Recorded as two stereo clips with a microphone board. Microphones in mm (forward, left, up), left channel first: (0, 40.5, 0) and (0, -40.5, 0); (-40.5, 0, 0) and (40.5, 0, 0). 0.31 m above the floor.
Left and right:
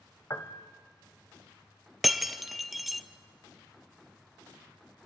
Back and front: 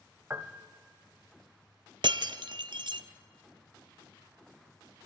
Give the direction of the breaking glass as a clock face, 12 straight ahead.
12 o'clock.